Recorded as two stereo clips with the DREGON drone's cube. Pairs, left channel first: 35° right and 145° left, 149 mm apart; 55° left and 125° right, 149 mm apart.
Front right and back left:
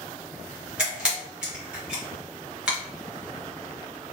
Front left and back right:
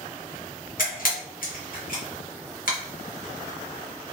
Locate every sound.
0.8 s a camera shutter: 60° left, 1.3 m